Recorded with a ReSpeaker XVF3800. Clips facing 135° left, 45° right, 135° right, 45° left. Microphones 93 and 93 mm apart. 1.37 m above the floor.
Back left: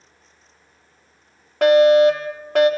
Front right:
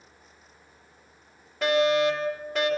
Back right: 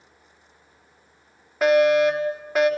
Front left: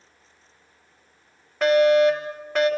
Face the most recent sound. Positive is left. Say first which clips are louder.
# back left 10 dB, front left 1 dB
turn(degrees=140)